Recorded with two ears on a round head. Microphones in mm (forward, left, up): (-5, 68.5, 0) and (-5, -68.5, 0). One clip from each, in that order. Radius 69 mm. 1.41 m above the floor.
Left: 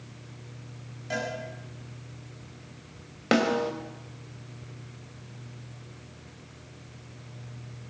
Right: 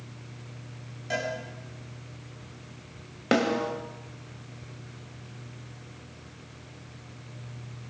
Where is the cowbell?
15° right (ahead or behind), 9 m.